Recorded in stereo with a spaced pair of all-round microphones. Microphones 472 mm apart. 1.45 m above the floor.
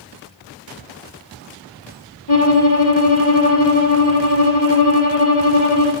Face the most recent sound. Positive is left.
turn(degrees=50)  # may be behind; listen again after turning